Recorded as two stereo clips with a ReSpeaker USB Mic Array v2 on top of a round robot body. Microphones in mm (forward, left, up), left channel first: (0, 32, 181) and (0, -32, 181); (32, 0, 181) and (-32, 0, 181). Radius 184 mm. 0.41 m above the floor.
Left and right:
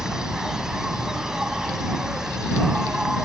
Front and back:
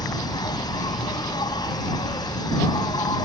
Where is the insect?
10° right.